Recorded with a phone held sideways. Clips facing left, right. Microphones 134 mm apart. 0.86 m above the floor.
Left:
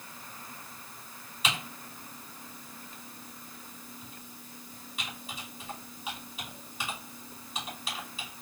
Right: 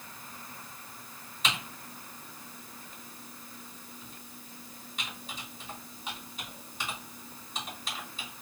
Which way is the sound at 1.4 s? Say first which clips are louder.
Left 1 dB; 5° left (ahead or behind).